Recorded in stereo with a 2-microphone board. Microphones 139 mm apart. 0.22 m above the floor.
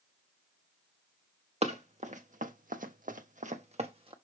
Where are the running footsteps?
50° right (ahead or behind), 1.1 m; by 4.1 s 40° right (ahead or behind), 1.0 m.